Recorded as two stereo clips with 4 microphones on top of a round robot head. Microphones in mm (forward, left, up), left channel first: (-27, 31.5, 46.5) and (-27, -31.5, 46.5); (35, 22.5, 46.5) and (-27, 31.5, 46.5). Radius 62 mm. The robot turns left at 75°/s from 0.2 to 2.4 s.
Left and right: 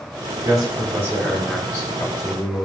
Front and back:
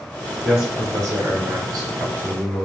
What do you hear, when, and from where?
0.4 s a man speaking: 105° right, 2.5 m; by 2.7 s 110° left, 2.5 m